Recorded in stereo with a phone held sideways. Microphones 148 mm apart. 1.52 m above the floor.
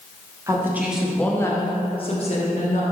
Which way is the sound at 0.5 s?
20° right (ahead or behind).